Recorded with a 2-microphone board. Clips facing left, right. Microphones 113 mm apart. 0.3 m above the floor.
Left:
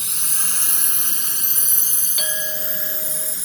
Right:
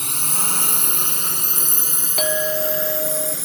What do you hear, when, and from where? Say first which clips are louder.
0.0 s a drone: right 8 dB; 55° right (ahead or behind); by 3.5 s 65° right (ahead or behind)
2.2 s a clink: right 11 dB; 55° right (ahead or behind)